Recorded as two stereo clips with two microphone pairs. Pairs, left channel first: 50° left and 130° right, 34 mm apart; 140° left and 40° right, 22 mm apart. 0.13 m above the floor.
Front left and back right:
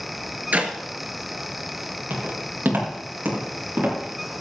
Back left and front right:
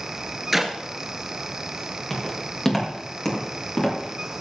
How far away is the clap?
About 2 m.